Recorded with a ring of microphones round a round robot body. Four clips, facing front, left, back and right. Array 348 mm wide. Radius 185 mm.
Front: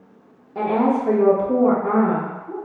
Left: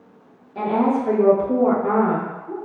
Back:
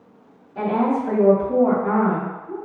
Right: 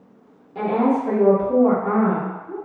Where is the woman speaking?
15° right, 1.0 m; by 2.5 s 70° left, 1.5 m.